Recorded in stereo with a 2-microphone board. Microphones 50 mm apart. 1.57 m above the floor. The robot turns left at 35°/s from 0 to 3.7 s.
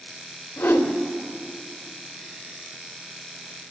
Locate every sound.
0.6 s a whoosh: 55° left (ahead or behind), 2 m; by 1.0 s 60° left (ahead or behind), 2 m